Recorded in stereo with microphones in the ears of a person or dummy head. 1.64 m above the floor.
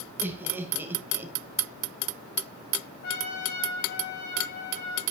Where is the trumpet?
55° left (ahead or behind), 3 m.